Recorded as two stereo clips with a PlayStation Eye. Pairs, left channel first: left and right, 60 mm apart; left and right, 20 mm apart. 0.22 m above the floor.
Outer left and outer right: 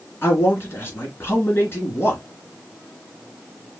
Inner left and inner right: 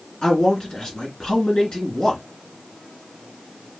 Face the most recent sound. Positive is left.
turn(degrees=35)  # may be behind; listen again after turning